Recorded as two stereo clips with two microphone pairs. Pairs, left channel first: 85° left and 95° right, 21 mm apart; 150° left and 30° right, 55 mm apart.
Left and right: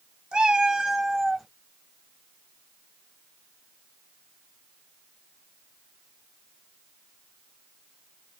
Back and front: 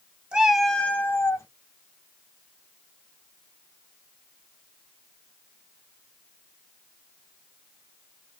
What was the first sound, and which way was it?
A cat meowing, 95° right.